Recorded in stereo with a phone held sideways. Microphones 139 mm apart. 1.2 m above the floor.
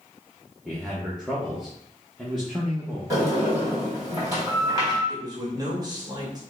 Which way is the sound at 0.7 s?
Centre (ahead or behind).